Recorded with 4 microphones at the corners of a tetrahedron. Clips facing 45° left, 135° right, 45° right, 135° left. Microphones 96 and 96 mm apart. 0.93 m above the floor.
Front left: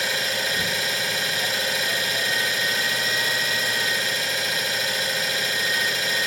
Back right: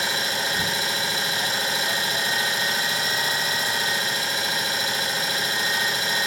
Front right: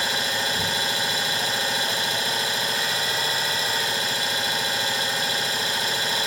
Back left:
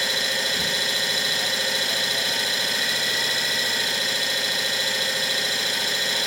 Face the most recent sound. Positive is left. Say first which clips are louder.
# even, front right 1 dB
turn(degrees=-80)